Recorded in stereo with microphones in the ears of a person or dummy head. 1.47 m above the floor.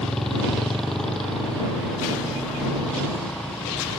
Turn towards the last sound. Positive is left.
turn(degrees=-5)  # may be behind; listen again after turning